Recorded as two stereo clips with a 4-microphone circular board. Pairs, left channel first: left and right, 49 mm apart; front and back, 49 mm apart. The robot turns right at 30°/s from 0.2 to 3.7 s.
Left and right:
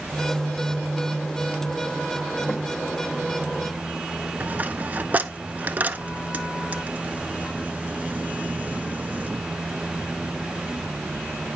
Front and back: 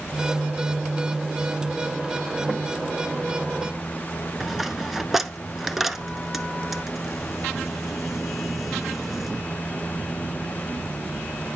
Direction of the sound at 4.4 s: 100° right.